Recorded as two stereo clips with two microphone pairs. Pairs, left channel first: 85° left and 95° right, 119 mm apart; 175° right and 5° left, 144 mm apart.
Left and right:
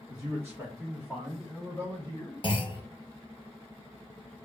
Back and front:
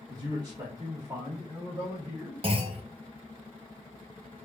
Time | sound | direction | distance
0.1 | a man speaking | 45° right | 1.6 m
2.4 | a clunk | 45° left | 0.7 m